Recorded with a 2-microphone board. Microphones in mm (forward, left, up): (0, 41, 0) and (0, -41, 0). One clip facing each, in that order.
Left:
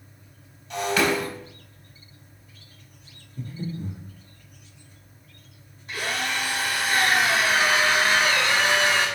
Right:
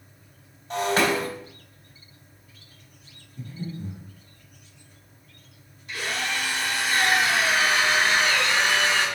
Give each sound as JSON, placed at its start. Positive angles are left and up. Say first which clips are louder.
{"t": 0.7, "sound": "breaking glass", "louder": "right 1 dB", "side_deg": -40, "distance_m": 2.5}
{"t": 3.4, "sound": "breathing", "louder": "left 2 dB", "side_deg": 45, "distance_m": 1.6}
{"t": 5.9, "sound": "a drill", "louder": "left 1 dB", "side_deg": 45, "distance_m": 3.0}